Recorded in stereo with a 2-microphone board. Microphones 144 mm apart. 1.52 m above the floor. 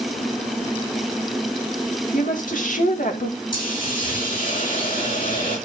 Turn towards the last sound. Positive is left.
turn(degrees=75)  # may be behind; listen again after turning